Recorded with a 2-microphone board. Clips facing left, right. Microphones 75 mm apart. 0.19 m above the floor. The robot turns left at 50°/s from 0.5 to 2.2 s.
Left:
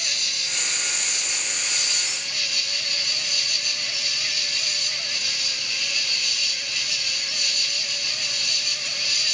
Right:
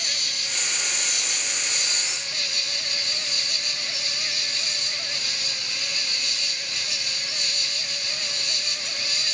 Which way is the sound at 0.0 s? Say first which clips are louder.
Even; 65° right.